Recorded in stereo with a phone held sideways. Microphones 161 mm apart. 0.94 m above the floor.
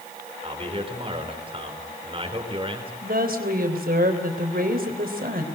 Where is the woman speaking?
70° right (ahead or behind), 3.5 m.